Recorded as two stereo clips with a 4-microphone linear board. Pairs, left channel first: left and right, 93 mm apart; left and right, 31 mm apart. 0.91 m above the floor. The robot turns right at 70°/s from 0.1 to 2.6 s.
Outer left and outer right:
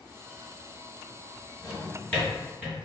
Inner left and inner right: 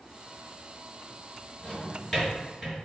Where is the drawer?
50° left (ahead or behind), 1.6 m; by 2.8 s 15° right (ahead or behind), 1.6 m.